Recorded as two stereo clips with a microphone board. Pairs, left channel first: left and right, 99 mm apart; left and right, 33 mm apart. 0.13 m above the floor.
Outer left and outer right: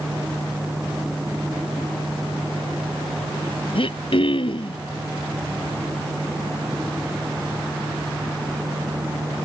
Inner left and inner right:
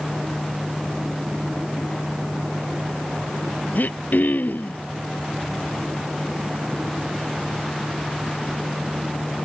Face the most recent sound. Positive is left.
turn(degrees=65)  # may be behind; listen again after turning